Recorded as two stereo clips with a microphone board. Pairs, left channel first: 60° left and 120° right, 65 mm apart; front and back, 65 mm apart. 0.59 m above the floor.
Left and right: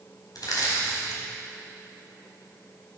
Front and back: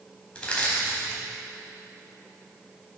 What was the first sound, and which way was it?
Crushing, 75° left.